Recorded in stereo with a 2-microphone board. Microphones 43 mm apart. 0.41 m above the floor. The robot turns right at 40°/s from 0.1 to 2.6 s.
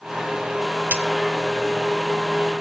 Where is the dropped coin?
45° right (ahead or behind), 0.6 m; by 1.0 s 40° right (ahead or behind), 0.6 m.